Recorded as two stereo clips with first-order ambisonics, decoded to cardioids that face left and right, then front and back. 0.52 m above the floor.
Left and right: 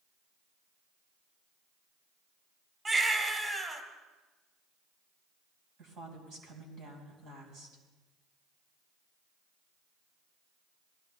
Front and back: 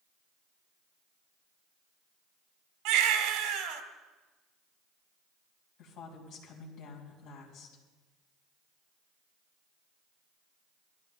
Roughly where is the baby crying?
Behind.